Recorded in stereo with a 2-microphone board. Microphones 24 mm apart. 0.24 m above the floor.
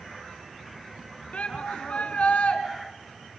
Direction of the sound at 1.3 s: 65° left (ahead or behind).